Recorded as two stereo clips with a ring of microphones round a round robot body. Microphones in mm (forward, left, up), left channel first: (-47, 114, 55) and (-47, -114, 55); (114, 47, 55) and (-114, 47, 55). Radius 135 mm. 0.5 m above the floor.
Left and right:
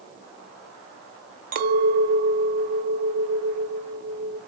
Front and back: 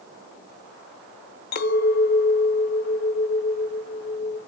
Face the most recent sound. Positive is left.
turn(degrees=-40)